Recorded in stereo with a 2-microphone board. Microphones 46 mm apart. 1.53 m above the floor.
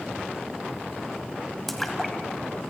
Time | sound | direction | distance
1.7 | a splash | 5° left (ahead or behind) | 2 m